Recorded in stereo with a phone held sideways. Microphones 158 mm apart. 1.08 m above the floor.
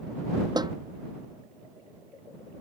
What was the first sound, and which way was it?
A snare drum, 25° right (ahead or behind).